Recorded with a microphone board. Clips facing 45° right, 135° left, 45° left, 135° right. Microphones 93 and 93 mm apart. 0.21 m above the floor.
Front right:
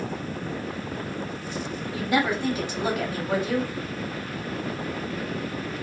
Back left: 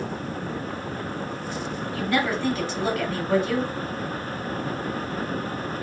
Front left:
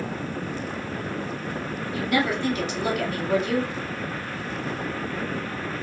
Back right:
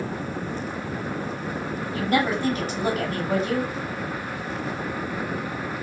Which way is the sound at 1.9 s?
110° right.